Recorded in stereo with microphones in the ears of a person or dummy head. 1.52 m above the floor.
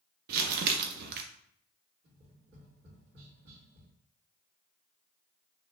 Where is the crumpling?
55° right (ahead or behind), 0.9 m.